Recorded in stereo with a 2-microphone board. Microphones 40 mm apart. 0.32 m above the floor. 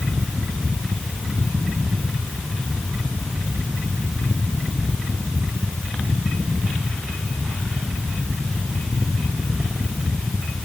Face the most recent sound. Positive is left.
No sound to turn to.